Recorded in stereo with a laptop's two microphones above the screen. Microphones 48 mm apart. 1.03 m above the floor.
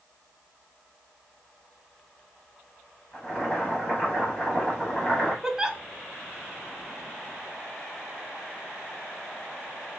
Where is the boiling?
20° left (ahead or behind), 3 m.